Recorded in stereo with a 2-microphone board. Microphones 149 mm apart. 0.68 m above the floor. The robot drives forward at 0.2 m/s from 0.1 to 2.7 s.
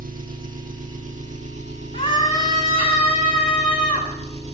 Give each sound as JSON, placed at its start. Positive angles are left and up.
{"t": 0.0, "sound": "an engine running", "side_deg": -65, "distance_m": 0.8}
{"t": 1.9, "sound": "a scream", "side_deg": 55, "distance_m": 1.7}